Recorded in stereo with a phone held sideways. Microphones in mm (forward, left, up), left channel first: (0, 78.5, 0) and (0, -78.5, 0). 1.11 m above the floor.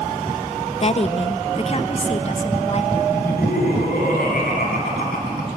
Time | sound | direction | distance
0.8 | a woman speaking | 40° left (ahead or behind) | 0.7 m
3.1 | laughter | 65° left (ahead or behind) | 9 m